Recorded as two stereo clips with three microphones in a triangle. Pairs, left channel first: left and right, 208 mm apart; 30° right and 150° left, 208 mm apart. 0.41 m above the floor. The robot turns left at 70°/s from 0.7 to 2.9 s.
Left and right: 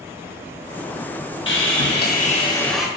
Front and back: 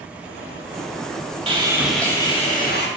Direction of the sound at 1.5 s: 90° left.